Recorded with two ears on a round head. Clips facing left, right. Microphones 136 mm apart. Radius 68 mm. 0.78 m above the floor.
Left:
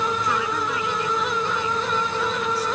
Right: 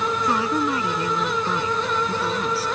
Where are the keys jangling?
No keys jangling in this recording.